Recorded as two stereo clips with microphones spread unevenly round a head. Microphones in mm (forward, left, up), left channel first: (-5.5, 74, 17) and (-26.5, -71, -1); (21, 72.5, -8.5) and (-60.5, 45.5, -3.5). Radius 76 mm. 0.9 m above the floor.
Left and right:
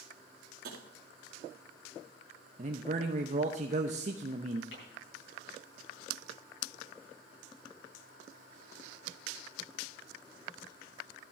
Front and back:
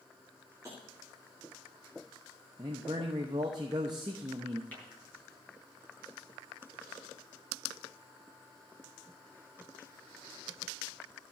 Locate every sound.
0.6 s tapping: 90° right, 2.0 m
2.6 s a man speaking: 110° right, 0.8 m
4.7 s tapping: 90° left, 7.5 m